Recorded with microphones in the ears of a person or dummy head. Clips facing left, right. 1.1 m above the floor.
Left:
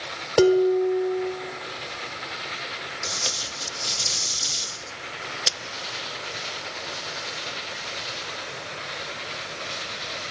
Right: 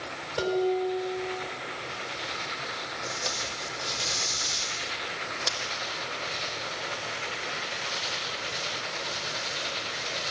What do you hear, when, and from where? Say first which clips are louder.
0.4 s dishes clattering: left 9 dB; 70° left (ahead or behind), 2.5 m
3.0 s tape being pulled: right 1 dB; 40° left (ahead or behind), 1.3 m